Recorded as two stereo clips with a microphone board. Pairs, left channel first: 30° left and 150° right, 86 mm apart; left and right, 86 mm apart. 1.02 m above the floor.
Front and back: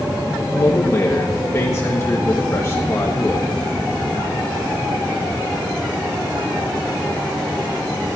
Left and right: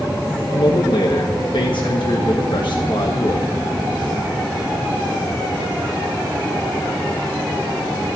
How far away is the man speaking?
About 1.3 m.